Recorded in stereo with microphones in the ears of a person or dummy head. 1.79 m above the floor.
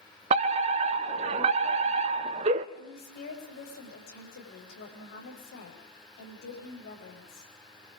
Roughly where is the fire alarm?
Right.